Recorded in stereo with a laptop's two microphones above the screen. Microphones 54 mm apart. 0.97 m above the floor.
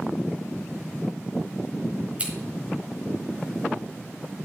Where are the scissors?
25° right (ahead or behind), 4 m.